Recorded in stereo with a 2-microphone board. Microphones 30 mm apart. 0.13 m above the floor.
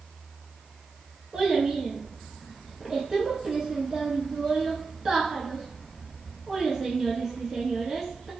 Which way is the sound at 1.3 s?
15° right (ahead or behind).